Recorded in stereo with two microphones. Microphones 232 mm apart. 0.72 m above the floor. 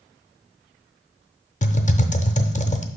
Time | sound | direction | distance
1.6 | typing on a keyboard | 35° left (ahead or behind) | 0.5 m